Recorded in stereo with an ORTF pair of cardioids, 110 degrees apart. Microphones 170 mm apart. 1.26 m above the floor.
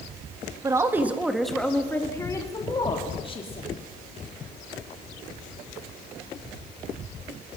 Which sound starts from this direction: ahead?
A woman speaking, at 0.6 s.